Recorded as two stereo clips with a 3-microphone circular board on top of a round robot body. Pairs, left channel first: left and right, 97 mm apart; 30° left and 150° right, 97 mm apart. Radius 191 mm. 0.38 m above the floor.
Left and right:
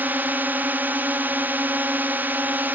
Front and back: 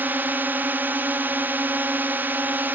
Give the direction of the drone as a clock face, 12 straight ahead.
4 o'clock.